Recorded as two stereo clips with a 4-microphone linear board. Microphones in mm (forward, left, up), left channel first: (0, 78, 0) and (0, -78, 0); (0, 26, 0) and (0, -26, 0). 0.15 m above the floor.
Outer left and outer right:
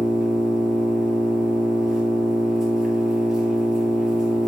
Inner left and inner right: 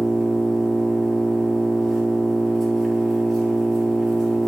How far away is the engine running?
About 3 m.